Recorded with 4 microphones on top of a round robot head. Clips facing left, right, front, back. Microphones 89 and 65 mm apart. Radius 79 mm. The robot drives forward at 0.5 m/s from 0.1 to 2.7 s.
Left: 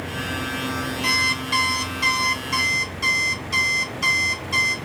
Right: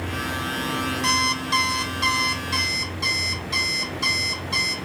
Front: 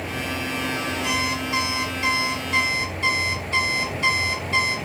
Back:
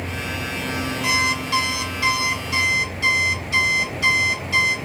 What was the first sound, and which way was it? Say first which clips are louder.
An alarm clock: right 1 dB, back 6 dB; 145° right.